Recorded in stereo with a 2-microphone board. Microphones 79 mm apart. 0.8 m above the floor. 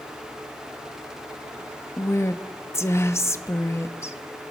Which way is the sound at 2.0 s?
35° left (ahead or behind).